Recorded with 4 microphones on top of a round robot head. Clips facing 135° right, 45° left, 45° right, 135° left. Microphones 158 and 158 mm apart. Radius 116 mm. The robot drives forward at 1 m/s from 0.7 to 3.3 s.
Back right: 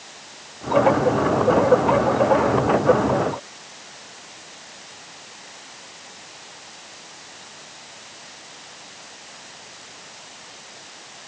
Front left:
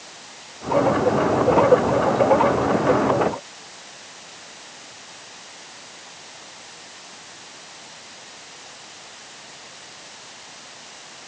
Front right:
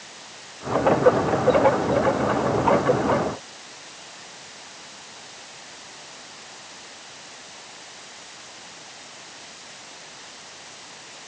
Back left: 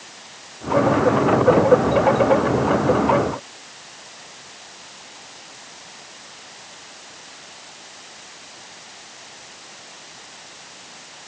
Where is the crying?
I don't hear crying.